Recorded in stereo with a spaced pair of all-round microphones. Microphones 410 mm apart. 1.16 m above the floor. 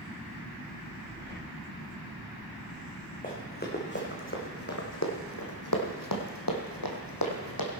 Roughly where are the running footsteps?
Centre.